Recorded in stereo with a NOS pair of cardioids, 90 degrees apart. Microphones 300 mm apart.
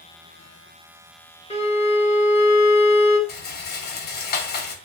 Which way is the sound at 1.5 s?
20° left.